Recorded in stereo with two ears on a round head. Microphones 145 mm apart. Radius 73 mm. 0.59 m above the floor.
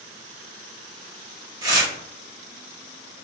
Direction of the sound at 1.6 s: 20° right (ahead or behind).